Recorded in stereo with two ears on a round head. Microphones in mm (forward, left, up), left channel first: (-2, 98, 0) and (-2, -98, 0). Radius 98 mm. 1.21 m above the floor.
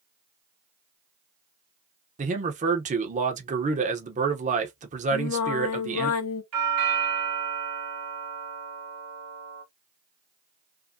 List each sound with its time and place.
2.2 s a man speaking: 30° right (ahead or behind), 0.9 m
5.1 s singing: 65° left (ahead or behind), 0.8 m
6.5 s a doorbell: 75° right (ahead or behind), 1.5 m